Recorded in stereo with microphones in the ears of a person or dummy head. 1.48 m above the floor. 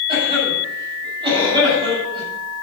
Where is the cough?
30° right (ahead or behind), 8.5 m.